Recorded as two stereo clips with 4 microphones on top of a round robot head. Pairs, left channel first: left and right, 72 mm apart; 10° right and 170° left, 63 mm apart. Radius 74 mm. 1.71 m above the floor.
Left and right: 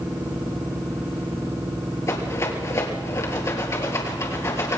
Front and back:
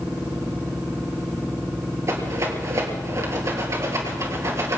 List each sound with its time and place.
2.1 s a rattle: 135° left, 3.5 m